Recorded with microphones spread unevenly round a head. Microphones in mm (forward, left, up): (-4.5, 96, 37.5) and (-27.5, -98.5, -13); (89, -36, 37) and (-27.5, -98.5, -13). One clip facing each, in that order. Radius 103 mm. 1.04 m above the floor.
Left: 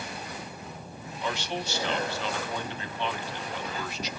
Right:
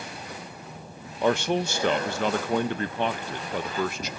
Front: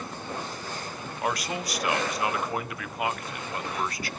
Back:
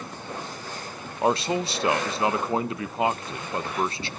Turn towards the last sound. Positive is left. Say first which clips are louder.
# right 10 dB, back 7 dB
turn(degrees=-110)